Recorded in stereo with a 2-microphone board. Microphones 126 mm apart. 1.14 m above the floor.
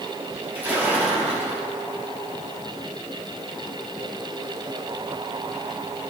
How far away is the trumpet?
I don't hear a trumpet.